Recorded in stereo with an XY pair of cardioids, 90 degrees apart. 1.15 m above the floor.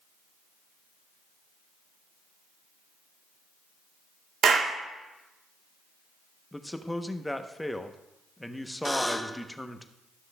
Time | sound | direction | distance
4.4 | a clap | 65° right | 1.2 m
6.5 | a man speaking | 10° left | 0.8 m
8.8 | a buzzer | 5° left | 0.7 m